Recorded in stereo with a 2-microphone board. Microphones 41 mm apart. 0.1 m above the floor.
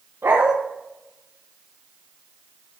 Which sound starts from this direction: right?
A dog barking, at 0.2 s.